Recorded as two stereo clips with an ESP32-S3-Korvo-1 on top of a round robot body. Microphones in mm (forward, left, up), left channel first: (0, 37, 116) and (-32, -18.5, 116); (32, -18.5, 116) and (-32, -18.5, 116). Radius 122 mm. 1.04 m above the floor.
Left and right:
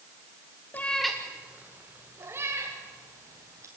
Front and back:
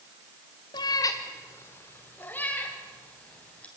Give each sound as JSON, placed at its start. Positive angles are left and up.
{"t": 0.7, "sound": "a cat meowing", "azimuth_deg": -5, "distance_m": 0.8}